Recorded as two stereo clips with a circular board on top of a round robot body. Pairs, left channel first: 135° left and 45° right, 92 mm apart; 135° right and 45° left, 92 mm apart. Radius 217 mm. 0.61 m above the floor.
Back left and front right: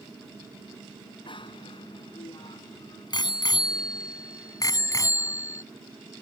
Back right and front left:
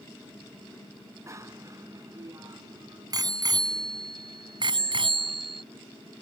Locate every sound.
1.3 s a bicycle bell: 105° left; by 5.6 s 75° left